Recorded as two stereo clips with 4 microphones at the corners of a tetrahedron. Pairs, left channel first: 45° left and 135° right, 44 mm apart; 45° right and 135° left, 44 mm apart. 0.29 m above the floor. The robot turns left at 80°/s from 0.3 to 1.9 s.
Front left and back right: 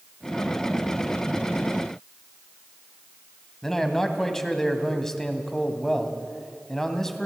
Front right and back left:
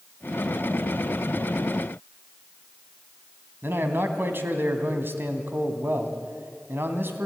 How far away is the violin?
I don't hear a violin.